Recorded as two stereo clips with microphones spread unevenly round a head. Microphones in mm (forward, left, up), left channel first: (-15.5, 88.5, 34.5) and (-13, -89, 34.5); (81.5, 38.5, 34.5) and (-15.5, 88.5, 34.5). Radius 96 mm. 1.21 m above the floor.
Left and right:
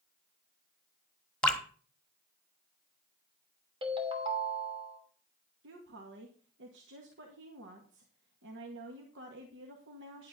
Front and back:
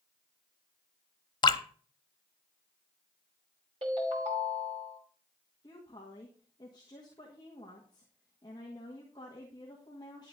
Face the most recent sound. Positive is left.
turn(degrees=-90)